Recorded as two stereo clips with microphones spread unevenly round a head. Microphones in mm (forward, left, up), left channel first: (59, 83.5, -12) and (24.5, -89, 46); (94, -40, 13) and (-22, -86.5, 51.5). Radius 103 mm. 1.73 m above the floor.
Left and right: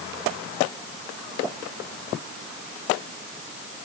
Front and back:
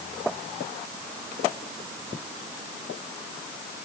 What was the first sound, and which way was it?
Only background noise.